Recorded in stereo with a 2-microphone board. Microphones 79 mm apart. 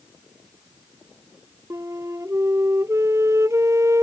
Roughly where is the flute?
Right.